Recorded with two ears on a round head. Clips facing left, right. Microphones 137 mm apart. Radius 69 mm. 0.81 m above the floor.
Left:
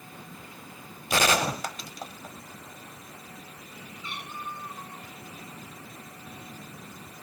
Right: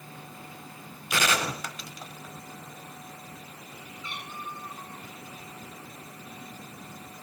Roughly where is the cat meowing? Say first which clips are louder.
Left 1 dB; centre.